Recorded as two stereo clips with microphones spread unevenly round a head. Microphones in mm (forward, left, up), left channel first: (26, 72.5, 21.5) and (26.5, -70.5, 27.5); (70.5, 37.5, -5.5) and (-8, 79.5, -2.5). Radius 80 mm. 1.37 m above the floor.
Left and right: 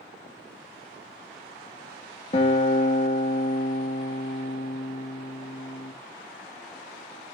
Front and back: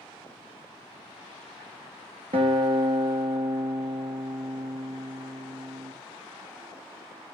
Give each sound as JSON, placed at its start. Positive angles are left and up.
{"t": 2.3, "sound": "a guitar", "azimuth_deg": 150, "distance_m": 1.2}